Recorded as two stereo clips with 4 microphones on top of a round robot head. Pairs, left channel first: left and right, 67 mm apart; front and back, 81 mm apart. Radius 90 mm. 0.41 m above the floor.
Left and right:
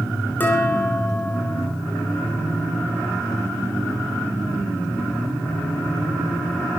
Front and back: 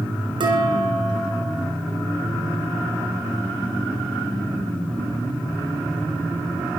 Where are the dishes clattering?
155° left, 4 m.